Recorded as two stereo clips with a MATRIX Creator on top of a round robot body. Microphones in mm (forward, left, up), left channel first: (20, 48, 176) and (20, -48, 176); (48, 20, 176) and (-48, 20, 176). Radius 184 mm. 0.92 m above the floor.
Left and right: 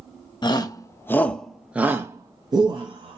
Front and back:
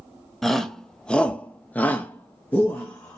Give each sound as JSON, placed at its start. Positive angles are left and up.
{"t": 0.4, "sound": "a shout", "azimuth_deg": 85, "distance_m": 0.9}